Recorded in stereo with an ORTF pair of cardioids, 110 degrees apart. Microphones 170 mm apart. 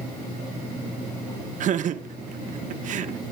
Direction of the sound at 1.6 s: 55° right.